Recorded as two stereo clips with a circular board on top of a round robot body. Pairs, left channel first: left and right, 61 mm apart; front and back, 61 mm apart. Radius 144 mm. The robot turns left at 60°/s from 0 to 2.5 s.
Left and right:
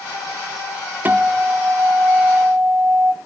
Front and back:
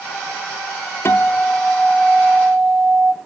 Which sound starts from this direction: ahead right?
A guitar, at 1.1 s.